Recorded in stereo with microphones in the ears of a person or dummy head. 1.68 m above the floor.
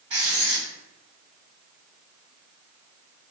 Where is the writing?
45° right (ahead or behind), 1.9 m.